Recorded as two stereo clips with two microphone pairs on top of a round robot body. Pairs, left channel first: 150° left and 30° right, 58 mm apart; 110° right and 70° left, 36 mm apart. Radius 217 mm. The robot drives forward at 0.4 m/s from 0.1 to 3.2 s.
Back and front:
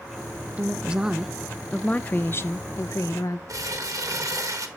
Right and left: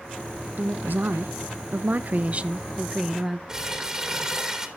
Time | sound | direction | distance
0.6 | a woman speaking | 35° left | 0.8 m
3.5 | crumpling | 10° right | 1.3 m